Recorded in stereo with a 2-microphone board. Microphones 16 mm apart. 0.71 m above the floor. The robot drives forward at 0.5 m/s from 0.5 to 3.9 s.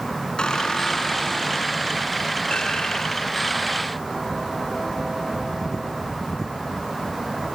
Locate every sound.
0.4 s a squeak: 75° left (ahead or behind); by 3.8 s 65° left (ahead or behind)